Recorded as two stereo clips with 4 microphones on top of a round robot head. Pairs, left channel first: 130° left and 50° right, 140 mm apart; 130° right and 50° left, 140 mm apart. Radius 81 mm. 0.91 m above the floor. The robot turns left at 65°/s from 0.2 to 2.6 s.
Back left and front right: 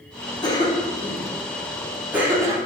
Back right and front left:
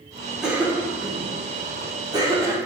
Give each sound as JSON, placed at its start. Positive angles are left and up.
{"t": 0.4, "sound": "a cough", "azimuth_deg": 135, "distance_m": 0.9}